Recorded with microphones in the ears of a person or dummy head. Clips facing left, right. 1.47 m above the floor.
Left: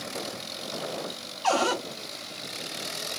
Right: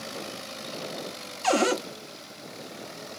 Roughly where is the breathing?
No breathing in this recording.